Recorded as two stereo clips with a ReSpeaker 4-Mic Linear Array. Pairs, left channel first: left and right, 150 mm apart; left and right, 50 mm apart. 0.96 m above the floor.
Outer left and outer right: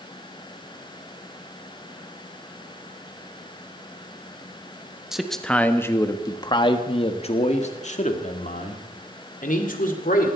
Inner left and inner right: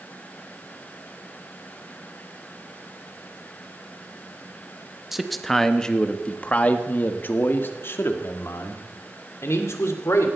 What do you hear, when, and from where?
5.1 s a man speaking: 5° right (ahead or behind), 1.1 m; by 10.3 s 65° left (ahead or behind), 3 m